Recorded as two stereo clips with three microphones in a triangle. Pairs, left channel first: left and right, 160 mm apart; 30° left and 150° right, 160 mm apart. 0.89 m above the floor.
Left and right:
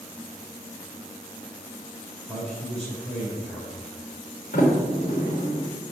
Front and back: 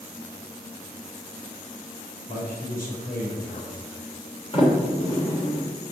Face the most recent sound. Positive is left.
turn(degrees=85)